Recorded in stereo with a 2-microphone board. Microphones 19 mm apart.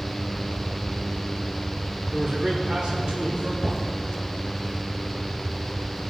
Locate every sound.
2.1 s a man speaking: 35° right (ahead or behind), 1.4 m; by 3.5 s 60° right (ahead or behind), 2.5 m
3.6 s knocking: 25° left (ahead or behind), 3.5 m